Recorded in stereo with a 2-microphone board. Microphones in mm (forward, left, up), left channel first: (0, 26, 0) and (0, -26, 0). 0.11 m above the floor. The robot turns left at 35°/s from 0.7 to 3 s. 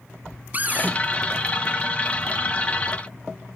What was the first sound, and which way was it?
A cupboard door, 30° right (ahead or behind).